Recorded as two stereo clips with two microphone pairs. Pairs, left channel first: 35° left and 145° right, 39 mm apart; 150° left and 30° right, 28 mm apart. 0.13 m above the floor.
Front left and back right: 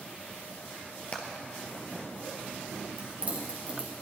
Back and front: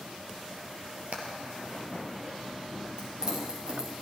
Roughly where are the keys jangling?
Right.